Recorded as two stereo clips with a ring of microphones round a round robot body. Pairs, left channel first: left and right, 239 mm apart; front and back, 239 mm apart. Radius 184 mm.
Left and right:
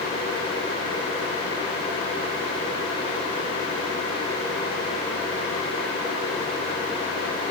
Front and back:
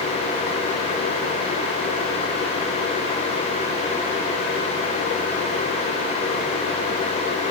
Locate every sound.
Only background noise.